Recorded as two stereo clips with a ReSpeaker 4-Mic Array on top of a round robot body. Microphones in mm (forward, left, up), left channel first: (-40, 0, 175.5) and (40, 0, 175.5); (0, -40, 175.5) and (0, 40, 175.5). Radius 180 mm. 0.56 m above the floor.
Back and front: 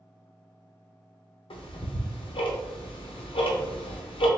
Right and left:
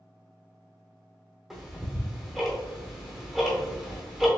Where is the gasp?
No gasp in this recording.